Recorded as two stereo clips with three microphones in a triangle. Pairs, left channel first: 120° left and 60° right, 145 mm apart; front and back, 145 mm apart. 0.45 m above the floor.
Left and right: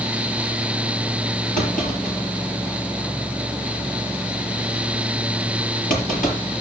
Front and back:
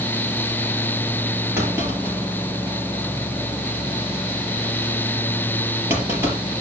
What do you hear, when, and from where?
1.6 s a clunk: 110° left, 5.5 m